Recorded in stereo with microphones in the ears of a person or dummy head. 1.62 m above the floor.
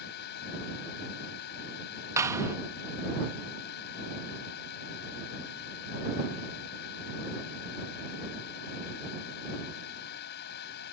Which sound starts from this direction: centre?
A clap, at 2.2 s.